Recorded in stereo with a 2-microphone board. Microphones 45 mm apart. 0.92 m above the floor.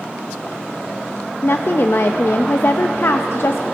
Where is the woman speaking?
60° left (ahead or behind), 0.6 m.